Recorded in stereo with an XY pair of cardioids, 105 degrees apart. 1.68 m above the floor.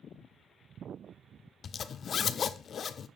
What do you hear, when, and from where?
1.6 s a zipper: 50° left, 0.6 m